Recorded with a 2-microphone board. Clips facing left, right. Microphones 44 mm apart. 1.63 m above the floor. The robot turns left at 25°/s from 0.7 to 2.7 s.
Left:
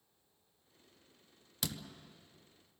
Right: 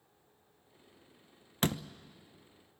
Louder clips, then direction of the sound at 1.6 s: Right 9 dB; 40° right (ahead or behind).